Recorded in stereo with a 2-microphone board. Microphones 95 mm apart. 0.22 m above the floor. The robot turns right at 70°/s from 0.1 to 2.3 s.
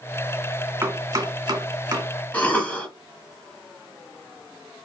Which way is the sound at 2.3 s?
15° left (ahead or behind).